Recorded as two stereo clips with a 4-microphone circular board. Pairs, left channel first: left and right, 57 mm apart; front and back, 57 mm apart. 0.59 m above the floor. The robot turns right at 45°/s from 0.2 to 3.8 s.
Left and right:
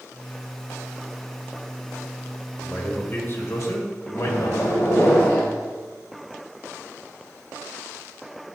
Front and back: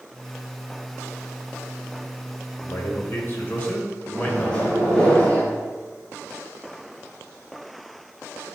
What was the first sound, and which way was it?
A man speaking, 15° left.